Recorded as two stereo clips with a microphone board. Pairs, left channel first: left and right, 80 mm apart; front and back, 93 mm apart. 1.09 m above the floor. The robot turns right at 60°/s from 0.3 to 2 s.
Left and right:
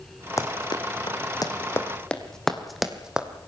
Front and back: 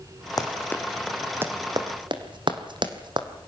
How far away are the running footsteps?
About 3 m.